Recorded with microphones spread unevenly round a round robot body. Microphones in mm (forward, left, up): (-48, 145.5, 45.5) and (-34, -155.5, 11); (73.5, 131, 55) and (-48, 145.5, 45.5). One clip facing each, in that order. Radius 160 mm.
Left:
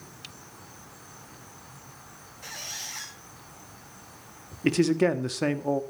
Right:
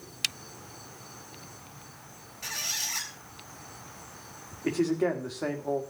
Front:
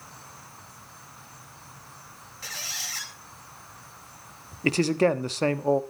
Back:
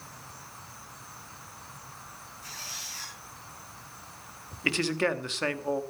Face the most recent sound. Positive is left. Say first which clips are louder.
# left 4 dB, front 6 dB
turn(degrees=45)